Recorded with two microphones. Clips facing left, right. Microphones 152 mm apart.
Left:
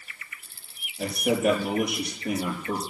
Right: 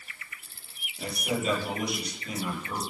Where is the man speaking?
60° left (ahead or behind), 4.5 m.